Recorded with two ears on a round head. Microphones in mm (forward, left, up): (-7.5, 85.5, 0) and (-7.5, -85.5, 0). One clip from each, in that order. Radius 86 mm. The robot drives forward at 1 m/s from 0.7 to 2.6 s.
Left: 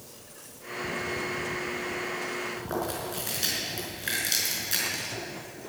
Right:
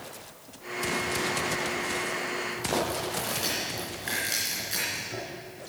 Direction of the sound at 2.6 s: 15° left (ahead or behind).